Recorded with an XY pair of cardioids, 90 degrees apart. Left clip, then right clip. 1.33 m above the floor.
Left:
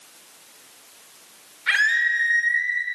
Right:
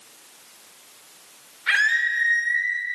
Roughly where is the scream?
Ahead.